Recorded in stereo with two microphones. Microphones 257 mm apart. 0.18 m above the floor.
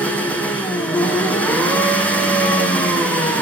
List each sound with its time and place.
0.0 s an engine running: 5° left (ahead or behind), 4.5 m